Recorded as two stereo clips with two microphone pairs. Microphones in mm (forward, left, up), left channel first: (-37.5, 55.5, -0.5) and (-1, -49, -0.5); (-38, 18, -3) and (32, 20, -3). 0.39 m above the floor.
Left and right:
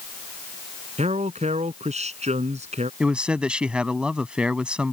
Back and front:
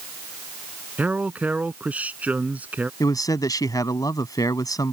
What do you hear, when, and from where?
1.0 s a man speaking: 65° right
3.0 s a man speaking: 155° right